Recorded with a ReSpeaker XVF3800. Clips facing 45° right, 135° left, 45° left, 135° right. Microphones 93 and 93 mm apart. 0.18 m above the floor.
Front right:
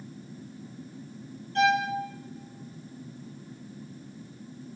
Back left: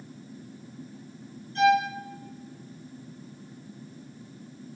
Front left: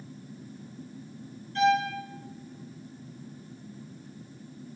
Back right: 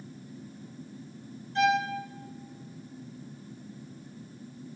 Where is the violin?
65° right, 0.6 m.